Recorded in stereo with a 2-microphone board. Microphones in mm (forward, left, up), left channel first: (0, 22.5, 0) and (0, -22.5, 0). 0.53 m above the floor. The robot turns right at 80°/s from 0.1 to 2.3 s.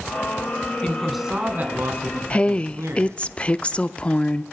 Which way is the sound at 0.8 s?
155° left.